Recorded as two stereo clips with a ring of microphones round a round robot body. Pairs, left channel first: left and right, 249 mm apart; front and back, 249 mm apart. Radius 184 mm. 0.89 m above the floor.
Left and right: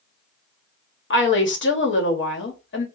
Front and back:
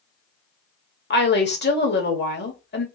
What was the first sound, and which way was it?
A woman speaking, 50° left.